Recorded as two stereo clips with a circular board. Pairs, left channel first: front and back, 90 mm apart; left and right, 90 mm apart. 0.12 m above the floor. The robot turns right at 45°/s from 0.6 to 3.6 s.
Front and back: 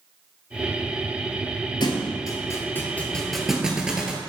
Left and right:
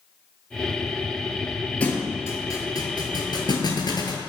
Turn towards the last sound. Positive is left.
turn(degrees=100)